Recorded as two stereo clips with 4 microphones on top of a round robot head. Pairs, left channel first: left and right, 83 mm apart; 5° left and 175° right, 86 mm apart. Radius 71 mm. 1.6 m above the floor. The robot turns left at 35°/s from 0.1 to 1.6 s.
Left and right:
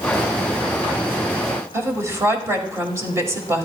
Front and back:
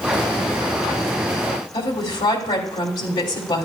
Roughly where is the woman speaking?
Ahead right.